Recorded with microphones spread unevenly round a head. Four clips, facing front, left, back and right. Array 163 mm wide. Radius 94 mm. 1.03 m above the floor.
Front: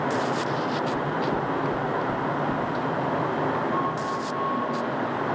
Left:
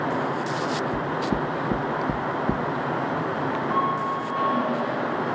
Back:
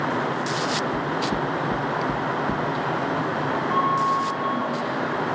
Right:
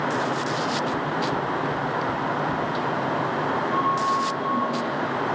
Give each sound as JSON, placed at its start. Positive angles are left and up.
{"t": 0.9, "sound": "knocking", "azimuth_deg": 105, "distance_m": 0.5}
{"t": 3.7, "sound": "a flute", "azimuth_deg": 155, "distance_m": 5.5}